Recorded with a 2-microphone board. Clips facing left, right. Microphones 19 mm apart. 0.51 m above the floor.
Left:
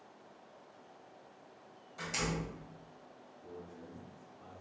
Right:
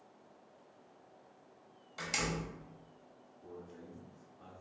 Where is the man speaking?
35° right (ahead or behind), 1.2 m.